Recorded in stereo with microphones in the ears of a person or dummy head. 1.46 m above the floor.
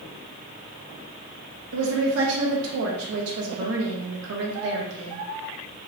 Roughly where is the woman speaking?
Right.